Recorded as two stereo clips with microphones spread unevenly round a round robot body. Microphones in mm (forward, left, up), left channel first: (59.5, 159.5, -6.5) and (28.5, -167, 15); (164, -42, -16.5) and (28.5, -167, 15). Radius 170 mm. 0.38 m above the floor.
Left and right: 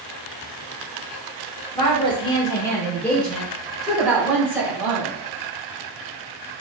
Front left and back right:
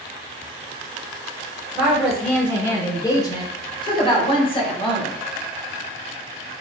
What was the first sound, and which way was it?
A woman speaking, 125° left.